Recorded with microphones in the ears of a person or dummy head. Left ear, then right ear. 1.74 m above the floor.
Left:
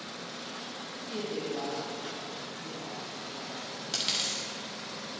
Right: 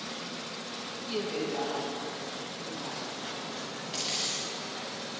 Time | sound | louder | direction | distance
1.1 | a woman speaking | right 3 dB | 65° right (ahead or behind) | 2.5 m
3.9 | a dropped coin | left 2 dB | 30° left (ahead or behind) | 2 m